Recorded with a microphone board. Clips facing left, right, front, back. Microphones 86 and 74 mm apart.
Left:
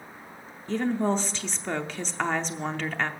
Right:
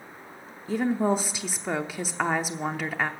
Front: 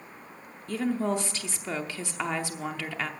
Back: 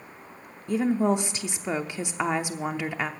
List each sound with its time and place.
0.7 s a woman speaking: 155° right, 0.7 m